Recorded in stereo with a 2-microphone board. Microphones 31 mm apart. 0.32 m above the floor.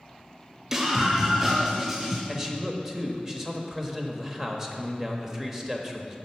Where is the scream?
10° right (ahead or behind), 0.9 m; by 2.2 s 5° right (ahead or behind), 2.5 m.